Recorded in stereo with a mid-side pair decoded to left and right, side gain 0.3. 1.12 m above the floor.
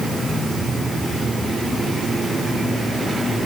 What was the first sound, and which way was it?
Only background noise.